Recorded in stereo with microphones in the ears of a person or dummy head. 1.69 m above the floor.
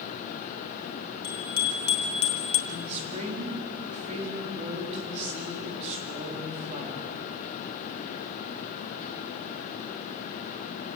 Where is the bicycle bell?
20° left (ahead or behind), 2.5 m; by 2.6 s 40° left (ahead or behind), 1.5 m.